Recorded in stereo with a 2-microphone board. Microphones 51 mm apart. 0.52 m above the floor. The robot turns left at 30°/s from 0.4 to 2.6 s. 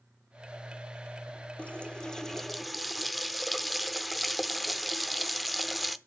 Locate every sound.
1.6 s a running tap: 30° left, 0.6 m; by 6.0 s straight ahead, 0.6 m